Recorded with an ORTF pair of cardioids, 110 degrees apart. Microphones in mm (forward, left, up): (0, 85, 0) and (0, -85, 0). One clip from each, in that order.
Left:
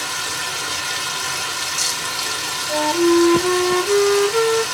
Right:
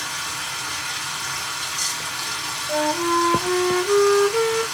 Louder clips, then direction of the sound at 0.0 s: Left 4 dB; 55° left.